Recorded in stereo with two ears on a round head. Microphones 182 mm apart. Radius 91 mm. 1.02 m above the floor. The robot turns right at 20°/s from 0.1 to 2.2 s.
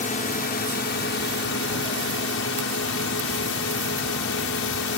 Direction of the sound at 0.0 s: 45° left.